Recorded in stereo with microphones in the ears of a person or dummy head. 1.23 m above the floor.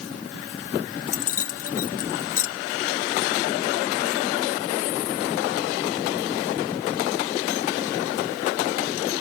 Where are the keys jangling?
50° left (ahead or behind), 0.6 m.